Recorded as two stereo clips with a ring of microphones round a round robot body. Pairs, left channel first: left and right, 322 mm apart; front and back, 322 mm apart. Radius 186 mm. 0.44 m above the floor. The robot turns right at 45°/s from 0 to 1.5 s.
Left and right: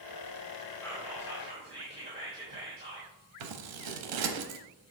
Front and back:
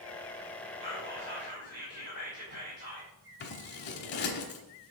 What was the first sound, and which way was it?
Whispering, 170° left.